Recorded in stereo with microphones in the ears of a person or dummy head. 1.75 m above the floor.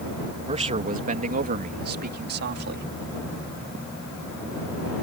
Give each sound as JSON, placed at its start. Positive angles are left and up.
{"t": 0.5, "sound": "a man speaking", "side_deg": -30}